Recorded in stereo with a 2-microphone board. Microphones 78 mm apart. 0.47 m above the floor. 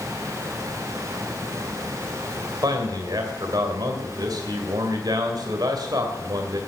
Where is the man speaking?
55° right (ahead or behind), 2.5 m.